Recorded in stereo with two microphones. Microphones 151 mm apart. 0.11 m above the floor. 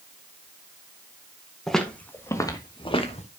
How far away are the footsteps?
About 2.5 m.